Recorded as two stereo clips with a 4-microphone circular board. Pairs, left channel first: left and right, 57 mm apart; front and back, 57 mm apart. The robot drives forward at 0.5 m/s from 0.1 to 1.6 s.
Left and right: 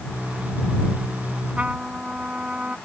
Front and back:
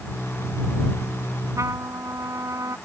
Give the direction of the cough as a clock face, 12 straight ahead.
No cough in this recording.